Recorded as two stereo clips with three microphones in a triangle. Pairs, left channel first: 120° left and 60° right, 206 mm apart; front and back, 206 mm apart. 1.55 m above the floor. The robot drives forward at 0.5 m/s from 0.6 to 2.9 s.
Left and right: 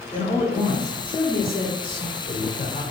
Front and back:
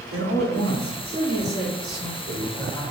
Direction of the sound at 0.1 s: 175° right.